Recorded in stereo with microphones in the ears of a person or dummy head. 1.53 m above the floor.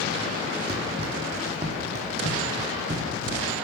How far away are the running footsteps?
About 4.5 m.